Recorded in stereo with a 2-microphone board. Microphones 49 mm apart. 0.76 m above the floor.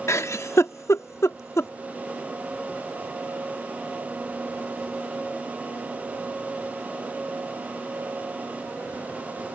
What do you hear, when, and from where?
0.1 s a giggle: 70° left (ahead or behind)